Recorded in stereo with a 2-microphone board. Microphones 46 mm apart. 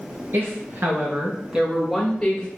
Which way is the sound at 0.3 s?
50° right (ahead or behind).